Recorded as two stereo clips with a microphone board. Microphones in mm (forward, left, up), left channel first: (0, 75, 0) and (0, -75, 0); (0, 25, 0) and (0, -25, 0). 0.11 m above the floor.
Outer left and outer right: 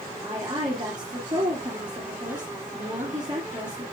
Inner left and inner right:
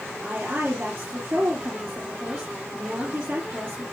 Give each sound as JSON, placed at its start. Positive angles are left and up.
{"t": 0.2, "sound": "a woman speaking", "side_deg": -30, "distance_m": 2.5}